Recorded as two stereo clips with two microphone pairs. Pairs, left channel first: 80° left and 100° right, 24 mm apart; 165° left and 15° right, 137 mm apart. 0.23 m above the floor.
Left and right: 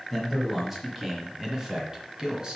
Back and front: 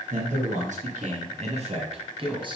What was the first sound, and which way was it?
A man speaking, 20° right.